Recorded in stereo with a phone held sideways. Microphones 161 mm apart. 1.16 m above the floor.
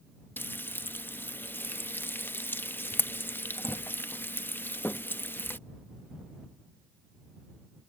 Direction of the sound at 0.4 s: 15° left (ahead or behind).